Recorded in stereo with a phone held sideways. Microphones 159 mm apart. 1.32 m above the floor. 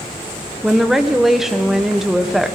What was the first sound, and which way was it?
A woman speaking, centre (ahead or behind).